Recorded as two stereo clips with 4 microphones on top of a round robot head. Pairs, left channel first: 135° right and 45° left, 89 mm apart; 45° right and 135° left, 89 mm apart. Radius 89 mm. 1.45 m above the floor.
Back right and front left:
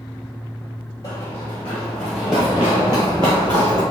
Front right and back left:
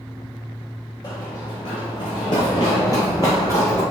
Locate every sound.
1.0 s running footsteps: 85° right, 1.7 m; by 3.8 s 20° left, 1.7 m